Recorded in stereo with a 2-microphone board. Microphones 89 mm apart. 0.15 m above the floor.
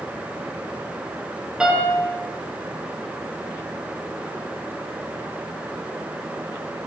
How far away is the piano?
About 2 m.